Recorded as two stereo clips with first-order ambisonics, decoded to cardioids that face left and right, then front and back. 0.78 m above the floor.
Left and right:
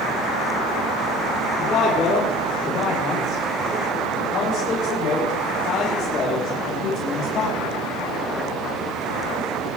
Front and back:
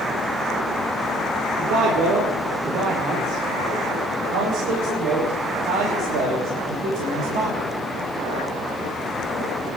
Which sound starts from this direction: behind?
A man speaking, at 1.6 s.